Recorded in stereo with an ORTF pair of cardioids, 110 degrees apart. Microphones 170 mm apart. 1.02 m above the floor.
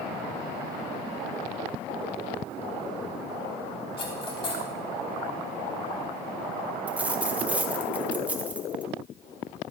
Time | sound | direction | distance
4.0 | cutlery clinking | 30° left | 4 m
6.9 | a dropped coin | 10° right | 1.3 m